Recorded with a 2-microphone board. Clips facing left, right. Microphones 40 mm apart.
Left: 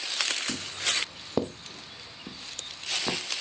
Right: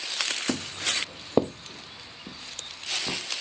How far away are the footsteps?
About 1.0 m.